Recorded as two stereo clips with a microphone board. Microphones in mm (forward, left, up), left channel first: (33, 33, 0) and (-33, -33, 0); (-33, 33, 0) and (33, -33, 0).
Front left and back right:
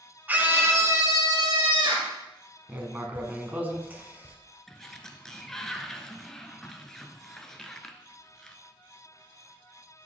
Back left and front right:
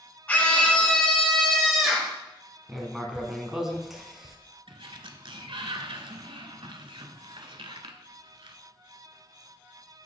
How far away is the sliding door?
About 0.5 m.